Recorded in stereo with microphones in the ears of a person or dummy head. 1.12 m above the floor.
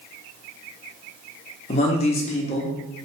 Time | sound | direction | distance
1.7 | a man speaking | 30° left (ahead or behind) | 0.5 m